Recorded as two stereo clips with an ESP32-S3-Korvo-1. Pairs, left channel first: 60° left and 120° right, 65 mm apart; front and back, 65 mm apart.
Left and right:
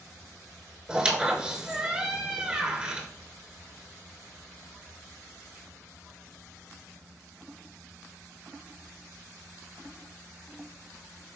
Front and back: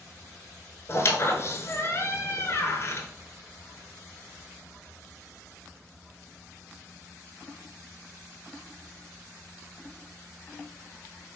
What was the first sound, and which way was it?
A squeak, 45° right.